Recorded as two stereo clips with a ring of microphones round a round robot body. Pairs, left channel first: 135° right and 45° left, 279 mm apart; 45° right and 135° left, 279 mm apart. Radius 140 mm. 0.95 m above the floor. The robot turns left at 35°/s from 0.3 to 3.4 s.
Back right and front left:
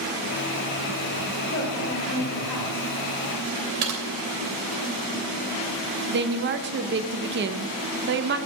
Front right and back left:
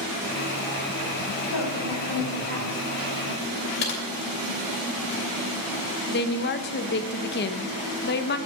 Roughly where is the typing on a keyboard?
Ahead.